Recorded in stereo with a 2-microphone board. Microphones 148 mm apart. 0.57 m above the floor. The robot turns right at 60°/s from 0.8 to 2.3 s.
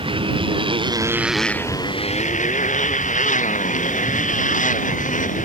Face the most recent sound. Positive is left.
turn(degrees=60)  # may be behind; listen again after turning